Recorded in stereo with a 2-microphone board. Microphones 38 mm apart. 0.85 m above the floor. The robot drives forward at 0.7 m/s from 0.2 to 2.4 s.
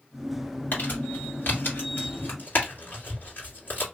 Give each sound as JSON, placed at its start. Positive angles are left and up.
{"t": 0.7, "sound": "crumpling", "side_deg": 55, "distance_m": 1.9}